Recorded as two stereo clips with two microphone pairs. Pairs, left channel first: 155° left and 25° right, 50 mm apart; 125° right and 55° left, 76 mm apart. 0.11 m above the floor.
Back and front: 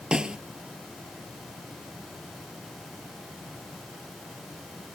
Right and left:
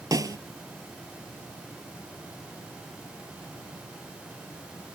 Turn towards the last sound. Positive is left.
turn(degrees=45)